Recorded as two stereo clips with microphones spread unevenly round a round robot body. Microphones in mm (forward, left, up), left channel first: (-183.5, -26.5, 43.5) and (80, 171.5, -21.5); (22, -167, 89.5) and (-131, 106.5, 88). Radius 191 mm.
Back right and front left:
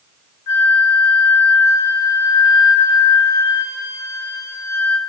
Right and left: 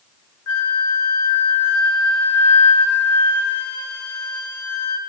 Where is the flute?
100° right, 0.6 m.